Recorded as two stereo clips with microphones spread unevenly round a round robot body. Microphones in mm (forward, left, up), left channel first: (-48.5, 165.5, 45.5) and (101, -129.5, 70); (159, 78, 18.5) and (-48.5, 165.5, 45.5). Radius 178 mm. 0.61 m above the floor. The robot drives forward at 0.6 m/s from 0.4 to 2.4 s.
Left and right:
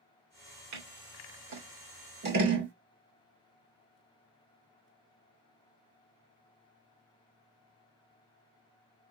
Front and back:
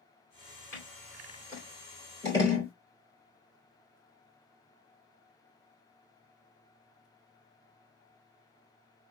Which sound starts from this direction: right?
Scissors, at 0.7 s.